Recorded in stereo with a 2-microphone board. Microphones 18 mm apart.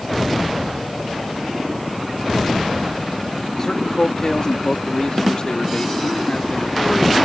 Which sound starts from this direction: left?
A man speaking, at 3.6 s.